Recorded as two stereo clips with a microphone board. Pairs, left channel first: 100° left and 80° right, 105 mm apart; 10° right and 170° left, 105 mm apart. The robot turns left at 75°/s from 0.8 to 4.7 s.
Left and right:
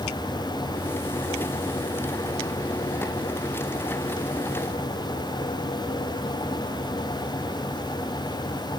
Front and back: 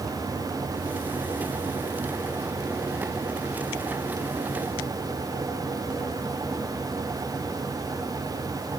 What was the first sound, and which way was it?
Only background noise.